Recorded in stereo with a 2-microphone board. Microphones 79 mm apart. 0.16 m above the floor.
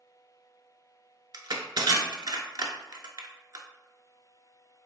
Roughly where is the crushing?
Right.